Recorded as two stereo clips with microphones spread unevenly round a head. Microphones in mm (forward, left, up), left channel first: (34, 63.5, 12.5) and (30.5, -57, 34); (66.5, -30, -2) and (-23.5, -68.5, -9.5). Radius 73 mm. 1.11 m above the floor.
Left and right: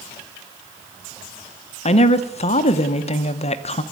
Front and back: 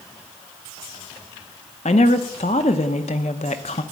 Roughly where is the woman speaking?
Ahead left.